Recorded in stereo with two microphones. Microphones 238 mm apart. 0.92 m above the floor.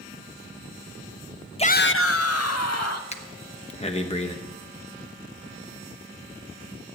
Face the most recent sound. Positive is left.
turn(degrees=25)  # may be behind; listen again after turning